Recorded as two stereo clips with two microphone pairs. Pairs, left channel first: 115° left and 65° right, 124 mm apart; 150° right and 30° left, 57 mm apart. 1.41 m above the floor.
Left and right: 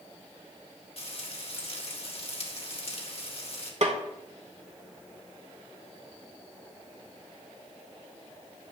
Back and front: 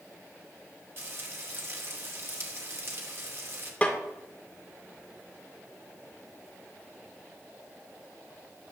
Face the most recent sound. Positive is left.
turn(degrees=-80)